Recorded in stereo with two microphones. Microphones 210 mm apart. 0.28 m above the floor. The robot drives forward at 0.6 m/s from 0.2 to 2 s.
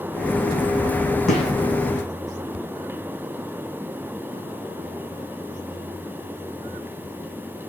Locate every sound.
1.3 s a gunshot: centre (ahead or behind), 2.5 m